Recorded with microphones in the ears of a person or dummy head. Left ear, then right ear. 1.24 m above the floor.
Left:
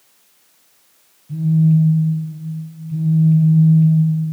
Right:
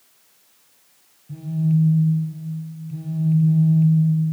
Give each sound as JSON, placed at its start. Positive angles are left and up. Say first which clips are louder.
{"t": 1.3, "sound": "a phone buzzing", "louder": "left 7 dB", "side_deg": -15, "distance_m": 1.4}